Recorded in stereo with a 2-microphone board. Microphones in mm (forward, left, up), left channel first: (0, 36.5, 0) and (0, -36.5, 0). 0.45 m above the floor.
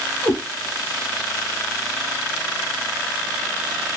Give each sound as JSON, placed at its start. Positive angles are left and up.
{"t": 0.2, "sound": "a cat meowing", "side_deg": 50, "distance_m": 1.3}